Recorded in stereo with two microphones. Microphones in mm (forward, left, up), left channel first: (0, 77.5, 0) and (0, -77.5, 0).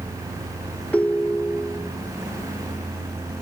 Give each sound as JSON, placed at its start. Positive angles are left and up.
{"t": 0.9, "sound": "a ringtone", "side_deg": 10, "distance_m": 0.6}